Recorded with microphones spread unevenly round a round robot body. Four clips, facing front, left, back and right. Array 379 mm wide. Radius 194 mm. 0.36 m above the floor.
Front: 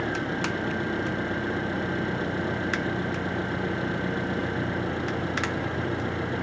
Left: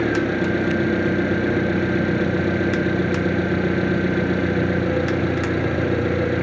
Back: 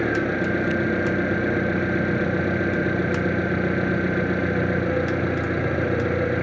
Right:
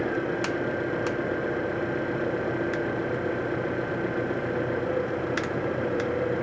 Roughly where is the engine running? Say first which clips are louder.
Left 7 dB, back 6 dB; behind left.